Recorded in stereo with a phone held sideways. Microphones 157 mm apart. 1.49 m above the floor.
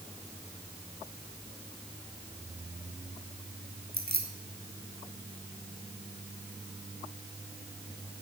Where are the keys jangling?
80° right, 1.7 m.